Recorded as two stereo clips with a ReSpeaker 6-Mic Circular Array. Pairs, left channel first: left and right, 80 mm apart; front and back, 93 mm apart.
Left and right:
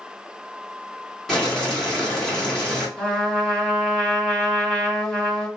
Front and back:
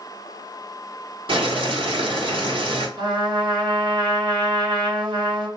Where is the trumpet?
170° left, 2 m.